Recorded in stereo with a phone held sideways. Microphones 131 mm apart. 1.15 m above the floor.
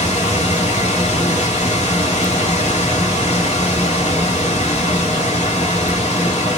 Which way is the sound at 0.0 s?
60° left (ahead or behind).